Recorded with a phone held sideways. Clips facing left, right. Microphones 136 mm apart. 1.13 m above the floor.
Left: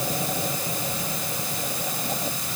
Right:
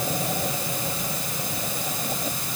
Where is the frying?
I don't hear frying.